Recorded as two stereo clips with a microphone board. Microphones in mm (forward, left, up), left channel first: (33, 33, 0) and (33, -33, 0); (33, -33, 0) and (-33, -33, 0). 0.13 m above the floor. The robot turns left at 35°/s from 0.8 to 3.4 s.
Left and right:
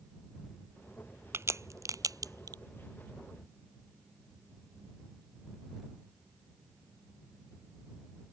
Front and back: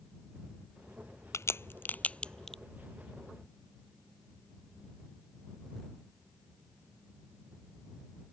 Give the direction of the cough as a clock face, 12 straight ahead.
I don't hear a cough.